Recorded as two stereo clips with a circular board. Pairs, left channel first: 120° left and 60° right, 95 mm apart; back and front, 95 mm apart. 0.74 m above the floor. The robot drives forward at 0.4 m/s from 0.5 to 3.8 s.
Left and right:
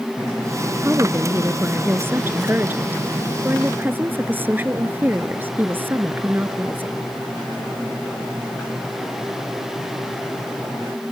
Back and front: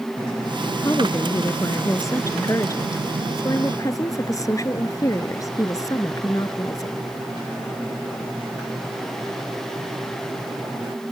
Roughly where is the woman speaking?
Behind right.